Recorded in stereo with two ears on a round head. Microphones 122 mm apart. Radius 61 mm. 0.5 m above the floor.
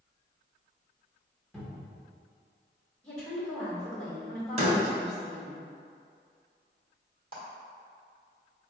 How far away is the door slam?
About 1.3 m.